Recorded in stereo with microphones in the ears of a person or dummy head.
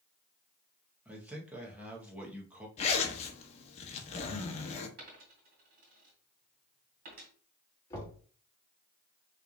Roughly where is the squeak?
No squeak in this recording.